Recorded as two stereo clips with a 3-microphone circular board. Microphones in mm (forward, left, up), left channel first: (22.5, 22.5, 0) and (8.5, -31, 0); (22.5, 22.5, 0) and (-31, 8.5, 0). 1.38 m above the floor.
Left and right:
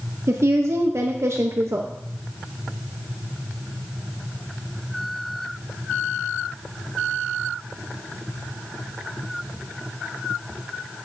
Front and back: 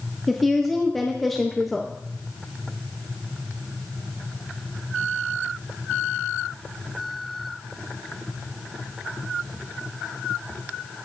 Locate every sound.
0.3 s a woman speaking: 70° right, 0.6 m